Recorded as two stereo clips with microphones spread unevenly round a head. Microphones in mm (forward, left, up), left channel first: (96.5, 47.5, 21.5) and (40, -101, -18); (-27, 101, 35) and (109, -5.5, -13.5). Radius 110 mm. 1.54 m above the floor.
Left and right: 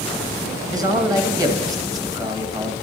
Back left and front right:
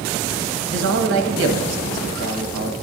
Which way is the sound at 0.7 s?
40° right.